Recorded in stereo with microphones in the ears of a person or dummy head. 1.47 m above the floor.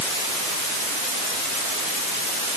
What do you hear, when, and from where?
Only background noise.